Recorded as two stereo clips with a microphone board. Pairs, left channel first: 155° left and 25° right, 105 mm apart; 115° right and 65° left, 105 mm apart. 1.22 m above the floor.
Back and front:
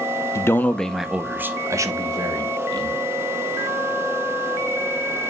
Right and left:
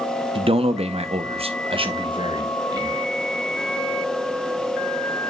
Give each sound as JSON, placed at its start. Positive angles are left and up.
{"t": 0.3, "sound": "a man speaking", "azimuth_deg": 95, "distance_m": 0.7}